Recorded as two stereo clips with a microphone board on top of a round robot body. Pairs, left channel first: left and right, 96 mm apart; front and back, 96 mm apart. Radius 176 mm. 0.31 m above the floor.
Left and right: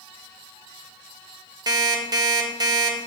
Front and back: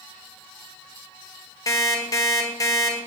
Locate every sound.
1.7 s an alarm clock: 50° right, 1.1 m